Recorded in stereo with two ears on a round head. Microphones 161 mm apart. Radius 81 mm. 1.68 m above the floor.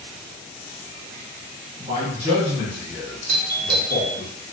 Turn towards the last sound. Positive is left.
turn(degrees=-55)  # may be behind; listen again after turning